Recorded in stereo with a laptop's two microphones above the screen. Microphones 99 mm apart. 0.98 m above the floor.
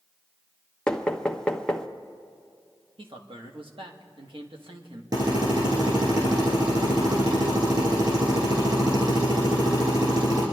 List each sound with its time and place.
0.9 s knocking: 10° left (ahead or behind), 0.9 m
3.0 s a man speaking: 60° right (ahead or behind), 1.4 m
5.1 s a drill: 45° right (ahead or behind), 6.5 m